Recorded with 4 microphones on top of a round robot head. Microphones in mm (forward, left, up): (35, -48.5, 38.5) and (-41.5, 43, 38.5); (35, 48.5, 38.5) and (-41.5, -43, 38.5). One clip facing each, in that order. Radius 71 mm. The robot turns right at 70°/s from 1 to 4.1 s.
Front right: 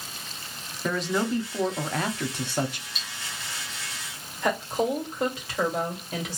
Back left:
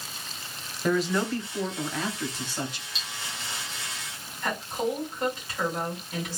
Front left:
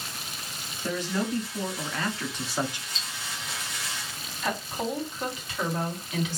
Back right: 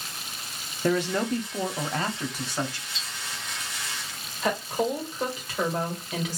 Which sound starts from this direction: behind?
Cutlery clinking, at 3.0 s.